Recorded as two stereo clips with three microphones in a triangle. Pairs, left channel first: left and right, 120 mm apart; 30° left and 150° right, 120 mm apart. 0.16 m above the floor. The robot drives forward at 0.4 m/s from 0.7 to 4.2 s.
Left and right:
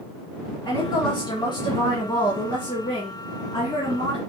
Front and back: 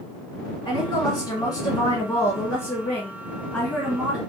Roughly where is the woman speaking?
Ahead left.